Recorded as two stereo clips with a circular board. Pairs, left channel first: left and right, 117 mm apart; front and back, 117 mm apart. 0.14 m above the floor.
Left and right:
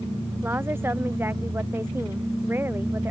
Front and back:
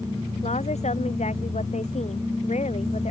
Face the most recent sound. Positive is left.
turn(degrees=-20)